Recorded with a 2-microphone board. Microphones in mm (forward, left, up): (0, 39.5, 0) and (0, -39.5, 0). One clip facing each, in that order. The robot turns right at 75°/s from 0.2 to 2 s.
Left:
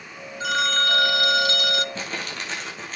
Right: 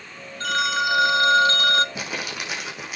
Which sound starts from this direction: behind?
A phone ringing, at 0.4 s.